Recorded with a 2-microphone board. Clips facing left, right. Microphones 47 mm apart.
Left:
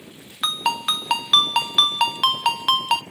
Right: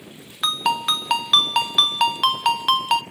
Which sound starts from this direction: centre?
A ringtone, at 0.4 s.